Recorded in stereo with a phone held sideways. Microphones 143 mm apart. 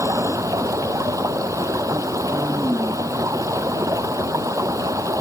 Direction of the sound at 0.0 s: 25° right (ahead or behind).